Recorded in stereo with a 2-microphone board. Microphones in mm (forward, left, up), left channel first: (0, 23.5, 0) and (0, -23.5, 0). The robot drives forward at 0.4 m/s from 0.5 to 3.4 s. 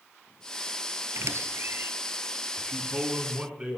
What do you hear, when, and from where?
1.1 s a squeak: 65° right (ahead or behind), 0.8 m; by 1.9 s 50° right (ahead or behind), 0.9 m
2.6 s a man speaking: 25° right (ahead or behind), 1.8 m; by 3.8 s 20° right (ahead or behind), 2.0 m